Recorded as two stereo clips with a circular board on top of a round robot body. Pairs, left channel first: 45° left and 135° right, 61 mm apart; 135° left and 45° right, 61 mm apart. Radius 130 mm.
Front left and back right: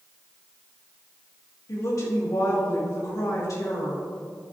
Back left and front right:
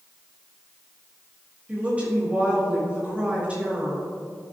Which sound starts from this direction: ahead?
A woman speaking, at 1.7 s.